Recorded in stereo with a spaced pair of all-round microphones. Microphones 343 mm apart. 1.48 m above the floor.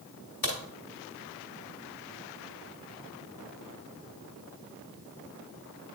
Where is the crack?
70° left (ahead or behind), 1.9 m.